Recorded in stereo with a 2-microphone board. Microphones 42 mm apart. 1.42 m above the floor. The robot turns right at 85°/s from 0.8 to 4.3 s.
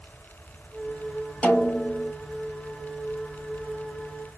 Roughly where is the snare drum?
Ahead left.